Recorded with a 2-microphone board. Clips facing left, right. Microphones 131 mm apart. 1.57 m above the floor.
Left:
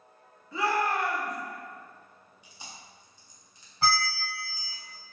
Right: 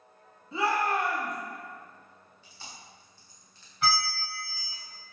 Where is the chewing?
15° left (ahead or behind), 0.9 m.